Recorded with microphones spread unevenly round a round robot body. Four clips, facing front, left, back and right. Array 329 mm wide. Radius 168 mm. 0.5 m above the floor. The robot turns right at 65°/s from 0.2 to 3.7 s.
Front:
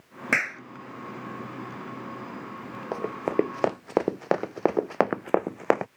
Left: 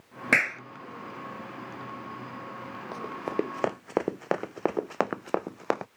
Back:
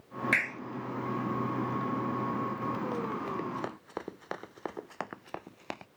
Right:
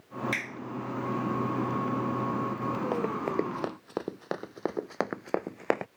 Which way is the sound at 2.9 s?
25° right.